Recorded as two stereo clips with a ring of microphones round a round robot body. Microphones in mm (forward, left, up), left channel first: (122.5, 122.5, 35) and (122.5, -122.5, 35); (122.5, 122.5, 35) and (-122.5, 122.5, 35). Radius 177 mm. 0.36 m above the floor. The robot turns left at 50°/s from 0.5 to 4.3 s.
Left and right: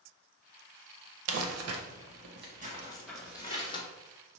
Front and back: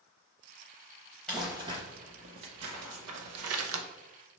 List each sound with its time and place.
1.3 s crumpling: 85° right, 0.6 m; by 3.8 s 145° left, 0.6 m